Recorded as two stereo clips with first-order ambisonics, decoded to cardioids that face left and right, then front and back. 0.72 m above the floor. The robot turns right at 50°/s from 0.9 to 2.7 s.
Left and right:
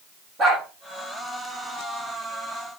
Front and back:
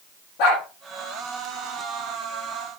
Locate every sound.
0.4 s a dog barking: 25° right, 7.5 m